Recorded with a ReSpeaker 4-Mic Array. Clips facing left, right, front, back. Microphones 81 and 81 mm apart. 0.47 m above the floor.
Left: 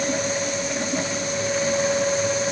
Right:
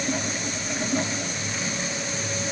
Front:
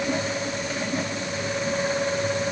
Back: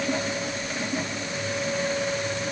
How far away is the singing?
I don't hear singing.